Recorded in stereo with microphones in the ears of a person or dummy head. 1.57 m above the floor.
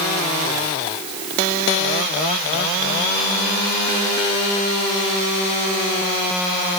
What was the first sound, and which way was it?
Only background noise.